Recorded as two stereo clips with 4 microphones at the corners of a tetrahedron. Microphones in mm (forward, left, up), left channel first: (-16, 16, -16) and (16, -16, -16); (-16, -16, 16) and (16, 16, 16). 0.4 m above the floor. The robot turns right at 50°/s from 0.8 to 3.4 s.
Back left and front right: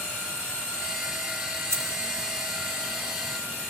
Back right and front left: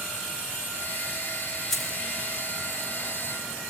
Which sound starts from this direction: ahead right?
Keys jangling, at 1.7 s.